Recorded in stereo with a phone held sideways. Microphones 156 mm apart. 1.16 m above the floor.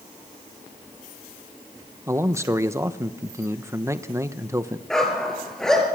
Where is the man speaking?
20° right (ahead or behind), 0.9 m.